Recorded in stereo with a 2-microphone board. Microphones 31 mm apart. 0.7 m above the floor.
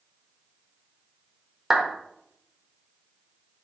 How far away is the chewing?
No chewing in this recording.